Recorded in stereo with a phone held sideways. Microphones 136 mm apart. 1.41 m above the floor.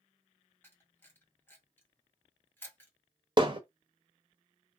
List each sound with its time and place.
0.6 s a camera shutter: 15° left (ahead or behind), 1.3 m
3.4 s hammering: 35° right (ahead or behind), 0.8 m